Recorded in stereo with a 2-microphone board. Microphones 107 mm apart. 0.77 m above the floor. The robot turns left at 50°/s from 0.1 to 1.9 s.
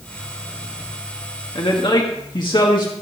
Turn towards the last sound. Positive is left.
turn(degrees=45)  # may be behind; listen again after turning